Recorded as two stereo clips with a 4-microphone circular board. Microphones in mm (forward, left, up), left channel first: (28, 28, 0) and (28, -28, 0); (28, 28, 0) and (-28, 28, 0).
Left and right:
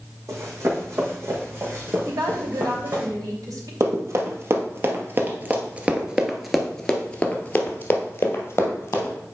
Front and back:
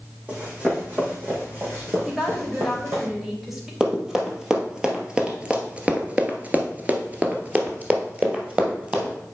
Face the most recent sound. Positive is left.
turn(degrees=115)